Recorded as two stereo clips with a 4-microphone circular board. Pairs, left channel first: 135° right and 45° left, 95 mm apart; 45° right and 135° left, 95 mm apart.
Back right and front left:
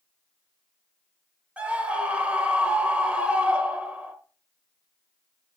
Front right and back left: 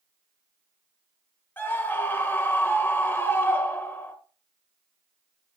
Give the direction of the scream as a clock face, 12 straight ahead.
12 o'clock.